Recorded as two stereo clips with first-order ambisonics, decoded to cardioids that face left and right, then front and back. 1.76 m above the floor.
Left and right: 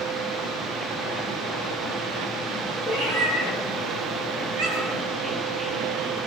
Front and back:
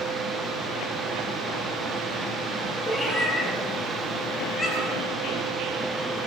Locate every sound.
2.9 s a cat meowing: 100° right, 7 m